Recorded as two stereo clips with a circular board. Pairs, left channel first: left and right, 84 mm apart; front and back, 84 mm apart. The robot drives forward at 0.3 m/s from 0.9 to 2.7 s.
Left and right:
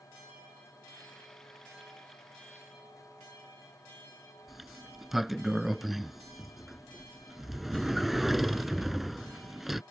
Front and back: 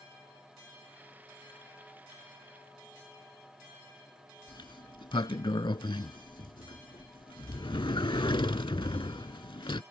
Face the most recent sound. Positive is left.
turn(degrees=-5)